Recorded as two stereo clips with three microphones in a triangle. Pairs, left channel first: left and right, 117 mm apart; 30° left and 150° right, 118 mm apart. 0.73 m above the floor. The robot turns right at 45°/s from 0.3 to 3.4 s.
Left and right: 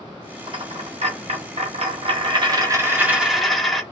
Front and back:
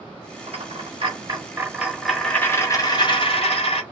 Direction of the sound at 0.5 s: 130° right.